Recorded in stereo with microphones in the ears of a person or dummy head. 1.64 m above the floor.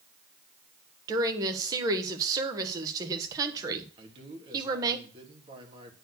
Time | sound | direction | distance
1.1 | a woman speaking | 25° right (ahead or behind) | 1.4 m
4.0 | a man speaking | 30° right (ahead or behind) | 3 m